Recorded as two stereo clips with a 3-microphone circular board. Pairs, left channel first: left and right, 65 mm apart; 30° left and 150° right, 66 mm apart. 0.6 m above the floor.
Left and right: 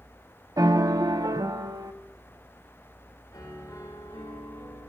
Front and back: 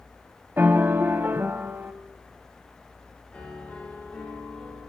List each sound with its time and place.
0.6 s a piano: 95° right, 0.8 m
3.3 s a piano: 100° left, 5.5 m